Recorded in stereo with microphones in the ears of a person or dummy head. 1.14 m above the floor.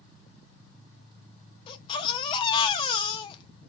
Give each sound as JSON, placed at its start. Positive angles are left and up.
{"t": 1.7, "sound": "a baby crying", "side_deg": 30, "distance_m": 0.6}